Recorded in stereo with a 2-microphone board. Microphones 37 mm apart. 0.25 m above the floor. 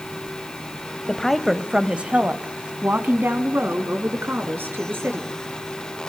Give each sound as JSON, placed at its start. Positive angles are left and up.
{"t": 1.1, "sound": "a woman speaking", "side_deg": 20, "distance_m": 1.0}